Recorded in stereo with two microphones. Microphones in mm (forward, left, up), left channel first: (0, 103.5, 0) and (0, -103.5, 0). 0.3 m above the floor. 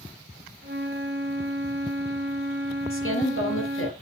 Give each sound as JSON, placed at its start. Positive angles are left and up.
{"t": 0.6, "sound": "a flute", "side_deg": -50, "distance_m": 2.0}
{"t": 2.9, "sound": "a woman speaking", "side_deg": 70, "distance_m": 6.0}